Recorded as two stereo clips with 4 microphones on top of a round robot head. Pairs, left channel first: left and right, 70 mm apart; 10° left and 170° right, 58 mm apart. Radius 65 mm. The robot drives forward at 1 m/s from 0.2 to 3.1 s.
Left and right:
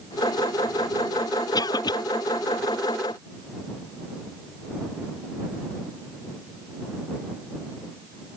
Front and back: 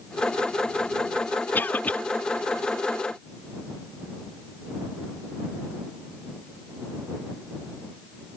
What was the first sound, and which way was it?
A cough, 65° left.